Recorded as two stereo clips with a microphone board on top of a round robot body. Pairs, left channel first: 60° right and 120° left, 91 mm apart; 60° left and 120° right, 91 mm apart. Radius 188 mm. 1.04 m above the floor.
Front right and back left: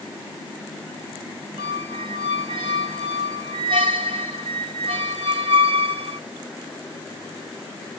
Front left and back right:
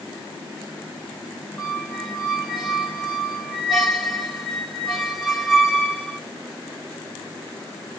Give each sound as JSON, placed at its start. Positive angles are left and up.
{"t": 1.6, "sound": "a squeak", "azimuth_deg": 150, "distance_m": 0.6}